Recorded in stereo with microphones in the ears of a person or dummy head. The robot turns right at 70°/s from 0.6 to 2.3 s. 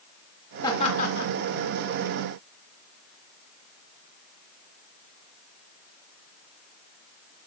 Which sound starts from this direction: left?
Laughter, at 0.6 s.